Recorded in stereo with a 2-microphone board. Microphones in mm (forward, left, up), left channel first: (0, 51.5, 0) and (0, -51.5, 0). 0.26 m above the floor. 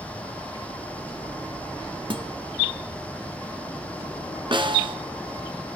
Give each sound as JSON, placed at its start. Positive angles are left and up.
{"t": 2.1, "sound": "a guitar", "side_deg": -55, "distance_m": 1.2}
{"t": 4.5, "sound": "a snare drum", "side_deg": -55, "distance_m": 1.8}